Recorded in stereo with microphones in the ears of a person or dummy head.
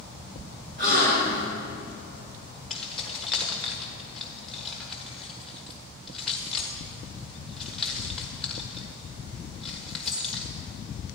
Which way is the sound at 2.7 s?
Centre (ahead or behind).